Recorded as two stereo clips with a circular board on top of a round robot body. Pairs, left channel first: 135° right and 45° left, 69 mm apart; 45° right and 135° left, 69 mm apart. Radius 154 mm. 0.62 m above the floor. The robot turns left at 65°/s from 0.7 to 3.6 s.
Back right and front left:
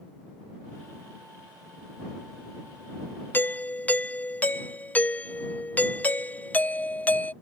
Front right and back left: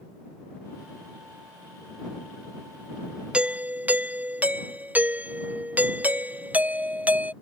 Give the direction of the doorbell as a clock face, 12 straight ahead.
5 o'clock.